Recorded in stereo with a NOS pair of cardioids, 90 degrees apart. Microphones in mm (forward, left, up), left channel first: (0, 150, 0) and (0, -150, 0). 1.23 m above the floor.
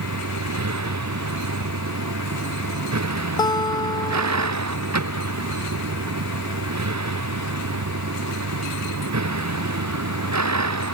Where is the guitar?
15° left.